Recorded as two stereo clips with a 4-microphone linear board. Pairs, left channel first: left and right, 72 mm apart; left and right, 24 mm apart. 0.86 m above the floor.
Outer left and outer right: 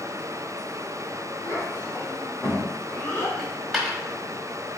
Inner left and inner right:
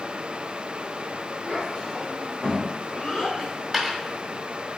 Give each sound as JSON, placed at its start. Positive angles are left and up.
{"t": 1.4, "sound": "a child speaking", "side_deg": 45, "distance_m": 3.5}
{"t": 3.4, "sound": "a dropped coin", "side_deg": 0, "distance_m": 1.9}